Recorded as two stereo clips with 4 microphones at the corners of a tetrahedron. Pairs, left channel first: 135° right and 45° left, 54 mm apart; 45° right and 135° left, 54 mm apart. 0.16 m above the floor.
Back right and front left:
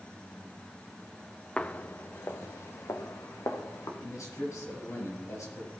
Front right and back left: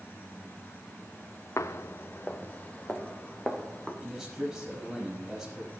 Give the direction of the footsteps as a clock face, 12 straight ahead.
2 o'clock.